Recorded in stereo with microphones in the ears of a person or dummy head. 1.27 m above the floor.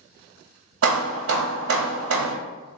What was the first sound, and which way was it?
Hammering, 80° right.